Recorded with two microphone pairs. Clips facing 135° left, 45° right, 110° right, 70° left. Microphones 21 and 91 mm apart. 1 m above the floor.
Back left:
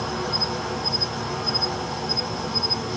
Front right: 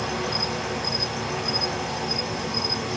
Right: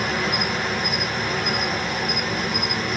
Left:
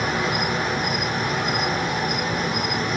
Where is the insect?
5° right, 2.5 m.